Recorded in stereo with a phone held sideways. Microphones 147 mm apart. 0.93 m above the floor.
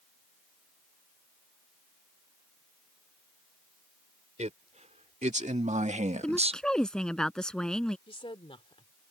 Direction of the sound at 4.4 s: 55° right (ahead or behind).